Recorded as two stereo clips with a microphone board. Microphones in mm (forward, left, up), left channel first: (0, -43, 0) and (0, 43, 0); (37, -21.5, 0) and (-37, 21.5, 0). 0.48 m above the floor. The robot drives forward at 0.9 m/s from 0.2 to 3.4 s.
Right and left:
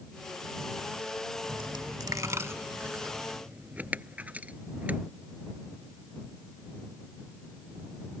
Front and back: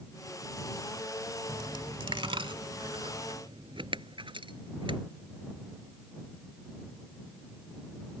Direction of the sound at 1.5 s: 100° left.